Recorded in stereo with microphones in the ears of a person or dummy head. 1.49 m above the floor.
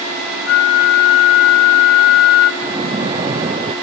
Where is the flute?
75° left (ahead or behind), 1.4 m.